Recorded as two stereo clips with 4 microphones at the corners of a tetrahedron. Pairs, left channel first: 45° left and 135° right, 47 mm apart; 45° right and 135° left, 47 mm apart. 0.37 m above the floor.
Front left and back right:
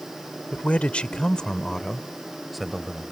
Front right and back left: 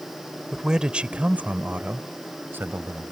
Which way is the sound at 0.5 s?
70° left.